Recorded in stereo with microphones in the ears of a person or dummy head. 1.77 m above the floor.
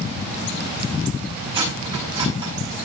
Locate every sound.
1.5 s cutlery clinking: 20° right (ahead or behind), 9 m